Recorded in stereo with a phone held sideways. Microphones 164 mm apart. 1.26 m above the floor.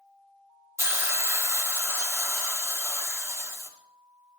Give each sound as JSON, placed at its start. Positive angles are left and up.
{"t": 0.8, "sound": "a hiss", "side_deg": -15, "distance_m": 1.7}